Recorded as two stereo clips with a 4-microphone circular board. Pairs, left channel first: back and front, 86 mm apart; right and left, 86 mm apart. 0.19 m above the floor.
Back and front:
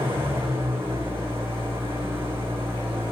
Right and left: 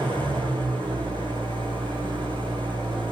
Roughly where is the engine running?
Ahead left.